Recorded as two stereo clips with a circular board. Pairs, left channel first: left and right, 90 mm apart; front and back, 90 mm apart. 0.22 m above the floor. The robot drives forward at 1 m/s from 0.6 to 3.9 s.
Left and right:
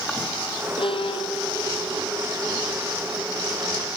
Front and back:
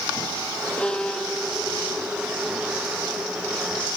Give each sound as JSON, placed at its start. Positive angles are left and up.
{"t": 0.8, "sound": "a violin", "azimuth_deg": 80}